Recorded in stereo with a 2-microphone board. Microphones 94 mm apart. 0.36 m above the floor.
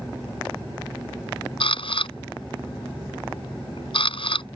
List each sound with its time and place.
1.6 s a camera shutter: 75° left (ahead or behind)